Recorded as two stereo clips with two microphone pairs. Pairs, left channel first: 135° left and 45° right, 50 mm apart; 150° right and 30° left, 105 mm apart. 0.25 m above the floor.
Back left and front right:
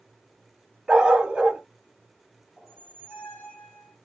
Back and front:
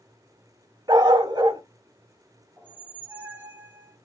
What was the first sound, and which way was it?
A dog barking, 15° left.